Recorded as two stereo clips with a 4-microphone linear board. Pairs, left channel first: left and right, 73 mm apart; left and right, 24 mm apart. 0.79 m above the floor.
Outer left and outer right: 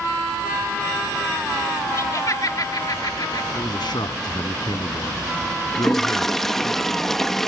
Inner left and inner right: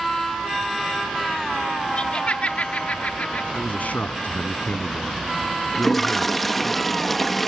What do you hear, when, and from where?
2.0 s laughter: 45° left (ahead or behind); by 3.5 s 65° left (ahead or behind)
3.5 s a man speaking: 85° left
5.7 s a toilet flushing: 5° left (ahead or behind)